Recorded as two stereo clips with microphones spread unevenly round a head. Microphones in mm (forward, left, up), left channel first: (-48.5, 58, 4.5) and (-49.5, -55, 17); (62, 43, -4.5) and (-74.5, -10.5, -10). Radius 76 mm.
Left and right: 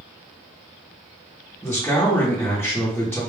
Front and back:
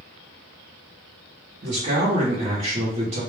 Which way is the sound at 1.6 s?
165° left.